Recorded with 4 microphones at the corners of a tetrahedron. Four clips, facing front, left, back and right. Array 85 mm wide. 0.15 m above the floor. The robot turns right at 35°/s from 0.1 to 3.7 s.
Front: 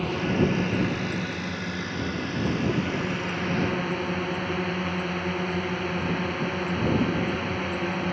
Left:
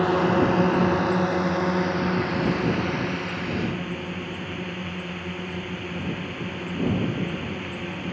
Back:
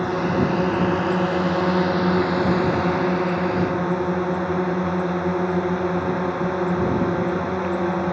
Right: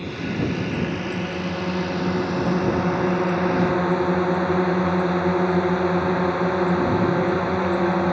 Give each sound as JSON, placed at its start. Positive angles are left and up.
{"t": 0.0, "sound": "a drone", "azimuth_deg": 115}